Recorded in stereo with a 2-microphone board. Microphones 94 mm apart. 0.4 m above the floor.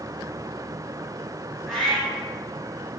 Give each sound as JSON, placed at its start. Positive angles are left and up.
{"t": 1.7, "sound": "a cat meowing", "side_deg": -5, "distance_m": 1.4}